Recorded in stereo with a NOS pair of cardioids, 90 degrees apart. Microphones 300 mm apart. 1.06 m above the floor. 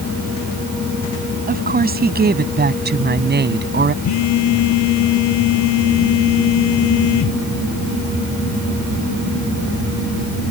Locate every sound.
1.5 s a woman speaking: 30° right; by 3.9 s 35° right
4.0 s a phone buzzing: 65° left